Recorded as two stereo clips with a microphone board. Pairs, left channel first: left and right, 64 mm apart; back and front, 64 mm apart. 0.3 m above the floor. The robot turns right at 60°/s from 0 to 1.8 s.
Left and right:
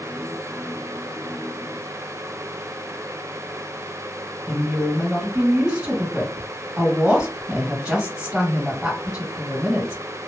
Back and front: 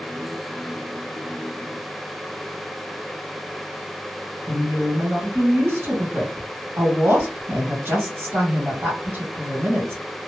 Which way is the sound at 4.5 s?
15° right.